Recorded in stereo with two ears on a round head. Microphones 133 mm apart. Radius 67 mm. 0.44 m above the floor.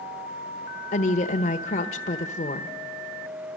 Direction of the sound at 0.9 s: 50° left (ahead or behind).